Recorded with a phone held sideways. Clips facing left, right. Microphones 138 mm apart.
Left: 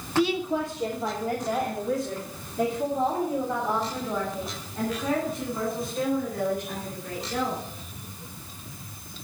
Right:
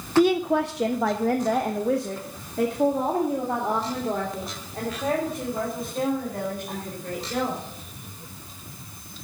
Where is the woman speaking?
40° right (ahead or behind), 0.6 m; by 7.6 s 55° right (ahead or behind), 5 m.